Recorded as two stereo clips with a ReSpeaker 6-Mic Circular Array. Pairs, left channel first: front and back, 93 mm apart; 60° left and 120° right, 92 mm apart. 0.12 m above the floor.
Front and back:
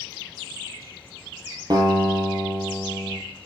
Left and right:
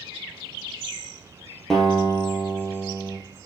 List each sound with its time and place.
1.7 s a guitar: 145° left, 2.5 m